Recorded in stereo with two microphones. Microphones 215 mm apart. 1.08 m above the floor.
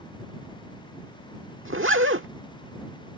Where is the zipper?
65° right (ahead or behind).